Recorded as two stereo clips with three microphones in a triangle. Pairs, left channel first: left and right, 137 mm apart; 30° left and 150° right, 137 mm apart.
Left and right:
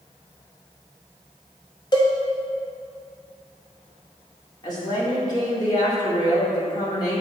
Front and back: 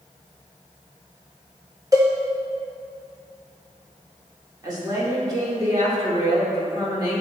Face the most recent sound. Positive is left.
turn(degrees=150)